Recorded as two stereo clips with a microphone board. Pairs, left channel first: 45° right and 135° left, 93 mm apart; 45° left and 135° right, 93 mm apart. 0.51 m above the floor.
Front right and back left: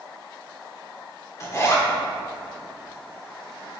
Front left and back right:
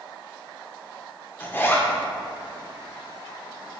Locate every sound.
1.4 s a zipper: 10° right, 1.3 m